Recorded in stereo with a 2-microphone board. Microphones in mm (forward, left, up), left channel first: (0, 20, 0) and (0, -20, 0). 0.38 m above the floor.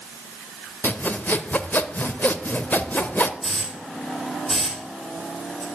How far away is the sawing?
About 0.6 m.